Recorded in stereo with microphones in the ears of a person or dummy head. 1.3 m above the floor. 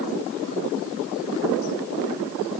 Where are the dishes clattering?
I don't hear dishes clattering.